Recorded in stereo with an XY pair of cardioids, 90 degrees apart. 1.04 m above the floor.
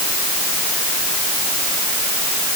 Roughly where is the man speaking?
I don't hear a man speaking.